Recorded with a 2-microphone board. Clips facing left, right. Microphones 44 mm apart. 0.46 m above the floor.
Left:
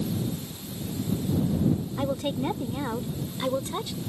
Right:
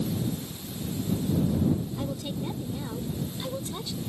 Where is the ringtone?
No ringtone in this recording.